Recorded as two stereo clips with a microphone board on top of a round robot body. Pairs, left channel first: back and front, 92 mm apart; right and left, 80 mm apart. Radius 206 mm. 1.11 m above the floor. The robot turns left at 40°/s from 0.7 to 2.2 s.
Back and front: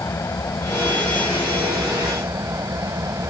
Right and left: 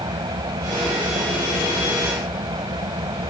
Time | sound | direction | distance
0.0 | an engine running | 120° left | ?